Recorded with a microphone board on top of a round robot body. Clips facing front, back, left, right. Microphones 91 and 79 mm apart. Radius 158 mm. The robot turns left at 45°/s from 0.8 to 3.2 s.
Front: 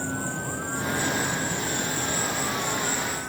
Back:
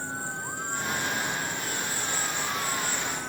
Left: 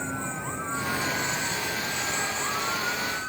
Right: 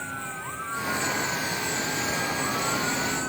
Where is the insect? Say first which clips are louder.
Front 4 dB, left 2 dB; 20° left; by 3.3 s 90° right.